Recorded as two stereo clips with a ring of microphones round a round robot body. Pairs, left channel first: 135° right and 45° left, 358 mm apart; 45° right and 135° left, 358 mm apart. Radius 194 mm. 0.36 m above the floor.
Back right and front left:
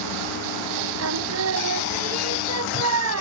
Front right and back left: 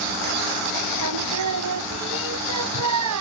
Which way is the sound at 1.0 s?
95° left.